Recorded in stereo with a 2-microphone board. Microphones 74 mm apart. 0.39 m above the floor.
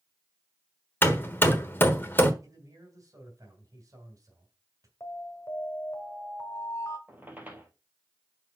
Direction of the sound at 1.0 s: 30° left (ahead or behind).